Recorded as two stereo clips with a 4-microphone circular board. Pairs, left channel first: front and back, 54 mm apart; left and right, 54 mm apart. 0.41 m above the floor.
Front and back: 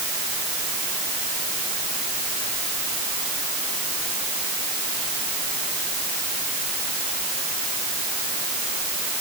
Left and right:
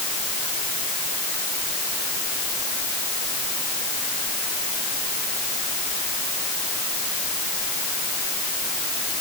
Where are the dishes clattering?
No dishes clattering in this recording.